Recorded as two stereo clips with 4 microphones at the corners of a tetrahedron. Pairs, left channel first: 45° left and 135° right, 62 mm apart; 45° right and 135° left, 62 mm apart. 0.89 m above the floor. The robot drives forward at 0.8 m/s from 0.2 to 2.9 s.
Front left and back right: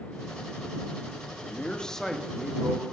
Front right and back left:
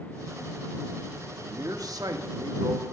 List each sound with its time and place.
1.4 s a man speaking: 110° left, 1.2 m; by 2.9 s 145° left, 1.9 m